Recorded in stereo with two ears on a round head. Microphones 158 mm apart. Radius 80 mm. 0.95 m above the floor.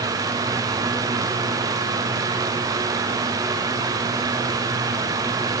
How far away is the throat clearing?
No throat clearing in this recording.